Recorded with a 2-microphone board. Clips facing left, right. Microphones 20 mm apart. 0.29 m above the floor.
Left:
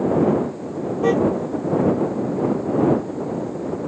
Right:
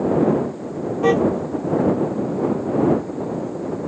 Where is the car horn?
15° right (ahead or behind).